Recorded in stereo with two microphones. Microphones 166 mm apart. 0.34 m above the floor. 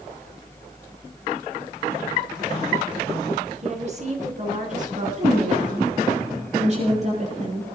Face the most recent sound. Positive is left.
turn(degrees=-45)  # may be behind; listen again after turning